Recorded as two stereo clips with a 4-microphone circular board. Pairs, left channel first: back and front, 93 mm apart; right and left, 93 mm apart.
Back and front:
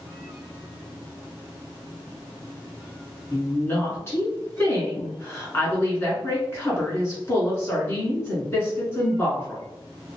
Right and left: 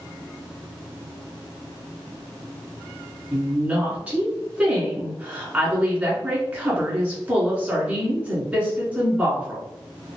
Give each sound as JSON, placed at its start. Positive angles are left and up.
{"t": 3.3, "sound": "a woman speaking", "azimuth_deg": 150, "distance_m": 1.3}